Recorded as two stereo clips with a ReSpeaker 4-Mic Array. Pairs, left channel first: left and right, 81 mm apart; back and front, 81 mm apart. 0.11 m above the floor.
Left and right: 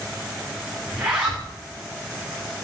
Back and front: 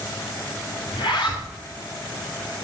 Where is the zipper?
170° right, 6 m.